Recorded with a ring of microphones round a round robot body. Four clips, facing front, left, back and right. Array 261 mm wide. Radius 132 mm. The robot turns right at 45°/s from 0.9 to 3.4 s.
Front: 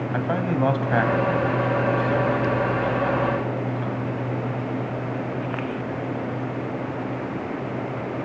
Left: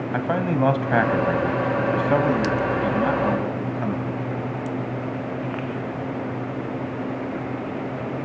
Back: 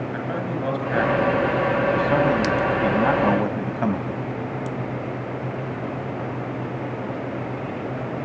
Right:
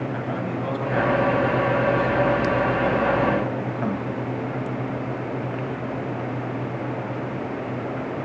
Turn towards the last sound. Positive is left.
turn(degrees=180)